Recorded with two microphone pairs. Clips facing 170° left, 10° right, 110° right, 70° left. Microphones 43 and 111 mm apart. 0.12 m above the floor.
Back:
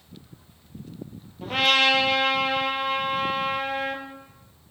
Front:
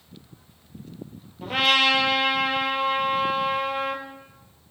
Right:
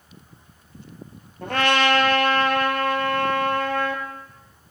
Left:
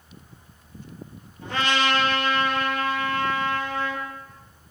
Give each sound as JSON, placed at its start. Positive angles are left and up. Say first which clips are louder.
{"t": 1.4, "sound": "a trumpet", "louder": "even, right 4 dB", "azimuth_deg": -100, "distance_m": 0.8}